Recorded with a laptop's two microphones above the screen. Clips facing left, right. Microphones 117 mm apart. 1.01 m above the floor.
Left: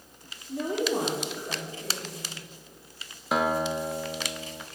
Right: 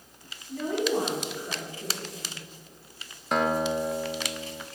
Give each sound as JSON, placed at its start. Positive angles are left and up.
{"t": 0.5, "sound": "a woman speaking", "side_deg": 20, "distance_m": 2.5}
{"t": 3.3, "sound": "a guitar", "side_deg": 5, "distance_m": 0.8}